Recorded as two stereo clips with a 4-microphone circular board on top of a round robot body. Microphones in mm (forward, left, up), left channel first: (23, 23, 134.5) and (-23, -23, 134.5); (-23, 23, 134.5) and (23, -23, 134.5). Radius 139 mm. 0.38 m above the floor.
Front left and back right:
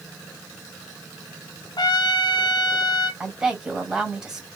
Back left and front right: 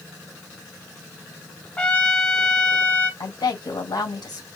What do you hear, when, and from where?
1.8 s a trumpet: 60° left, 1.0 m
3.2 s a woman speaking: 145° left, 2.5 m